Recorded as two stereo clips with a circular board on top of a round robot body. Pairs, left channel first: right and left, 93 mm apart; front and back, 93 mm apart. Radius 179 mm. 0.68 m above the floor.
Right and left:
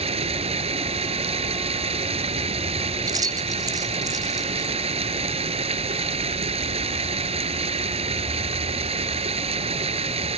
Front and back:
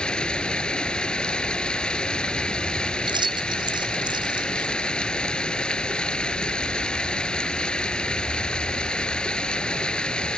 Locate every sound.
0.0 s running water: 80° left
3.1 s keys jangling: 140° left